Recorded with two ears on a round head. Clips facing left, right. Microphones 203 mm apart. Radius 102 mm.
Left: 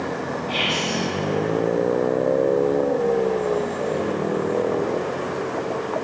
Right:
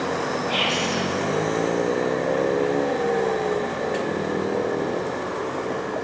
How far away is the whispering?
About 1.1 m.